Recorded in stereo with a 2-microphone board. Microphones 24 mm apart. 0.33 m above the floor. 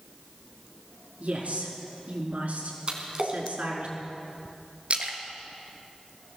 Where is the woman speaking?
70° right (ahead or behind), 4.5 m.